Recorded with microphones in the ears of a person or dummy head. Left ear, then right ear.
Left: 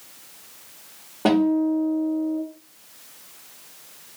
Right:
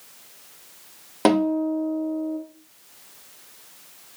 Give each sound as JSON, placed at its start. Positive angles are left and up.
{"t": 1.2, "sound": "a guitar", "side_deg": -50, "distance_m": 0.9}